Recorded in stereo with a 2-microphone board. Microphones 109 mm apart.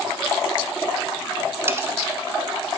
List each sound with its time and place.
1.7 s cutlery clinking: 20° right (ahead or behind), 0.9 m